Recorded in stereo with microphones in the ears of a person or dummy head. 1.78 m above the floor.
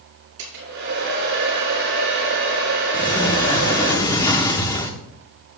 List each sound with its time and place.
0.4 s a hair dryer: 60° right (ahead or behind), 3.5 m
2.9 s a sliding door: 25° left (ahead or behind), 1.0 m